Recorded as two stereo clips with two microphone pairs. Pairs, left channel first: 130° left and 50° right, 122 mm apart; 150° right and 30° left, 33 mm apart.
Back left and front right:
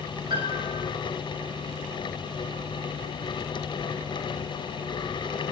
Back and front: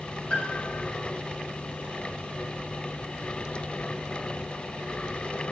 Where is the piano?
100° right, 5 m.